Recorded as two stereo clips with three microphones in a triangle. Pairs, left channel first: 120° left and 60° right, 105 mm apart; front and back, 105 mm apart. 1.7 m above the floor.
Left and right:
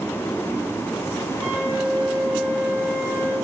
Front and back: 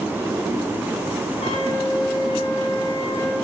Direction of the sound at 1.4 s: 5° left.